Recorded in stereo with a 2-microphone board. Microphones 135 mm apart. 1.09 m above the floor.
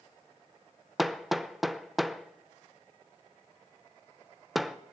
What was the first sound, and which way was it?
Hammering, centre (ahead or behind).